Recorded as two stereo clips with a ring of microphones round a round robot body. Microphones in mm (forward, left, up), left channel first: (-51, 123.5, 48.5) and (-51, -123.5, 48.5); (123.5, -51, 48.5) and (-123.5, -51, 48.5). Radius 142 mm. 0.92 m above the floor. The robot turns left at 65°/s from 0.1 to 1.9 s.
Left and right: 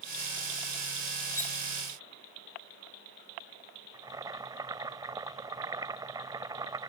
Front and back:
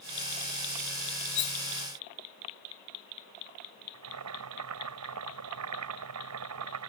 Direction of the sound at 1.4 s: 10° left.